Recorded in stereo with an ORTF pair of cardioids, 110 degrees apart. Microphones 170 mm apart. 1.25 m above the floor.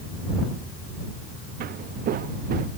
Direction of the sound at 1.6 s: 65° right.